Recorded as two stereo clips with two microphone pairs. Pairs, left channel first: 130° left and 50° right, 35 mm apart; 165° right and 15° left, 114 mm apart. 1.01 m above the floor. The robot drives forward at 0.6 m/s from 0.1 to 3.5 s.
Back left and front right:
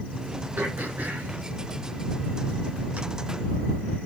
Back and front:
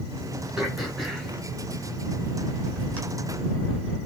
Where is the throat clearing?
75° right, 6 m; by 3.0 s 85° right, 6 m.